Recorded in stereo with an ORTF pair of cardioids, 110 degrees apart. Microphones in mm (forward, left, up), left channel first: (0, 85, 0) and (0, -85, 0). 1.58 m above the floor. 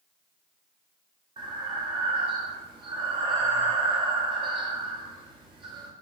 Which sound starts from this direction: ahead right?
Breathing, at 1.4 s.